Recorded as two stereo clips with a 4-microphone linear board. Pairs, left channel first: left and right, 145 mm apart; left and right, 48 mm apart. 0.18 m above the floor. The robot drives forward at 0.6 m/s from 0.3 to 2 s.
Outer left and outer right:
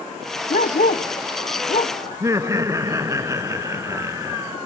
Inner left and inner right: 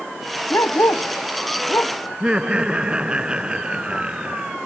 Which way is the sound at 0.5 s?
70° left (ahead or behind).